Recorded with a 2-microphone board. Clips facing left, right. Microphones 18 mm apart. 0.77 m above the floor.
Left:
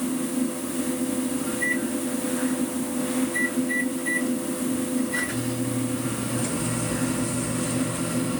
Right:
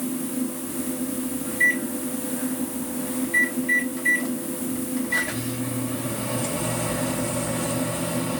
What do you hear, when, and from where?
1.5 s a microwave: 80° right, 2.5 m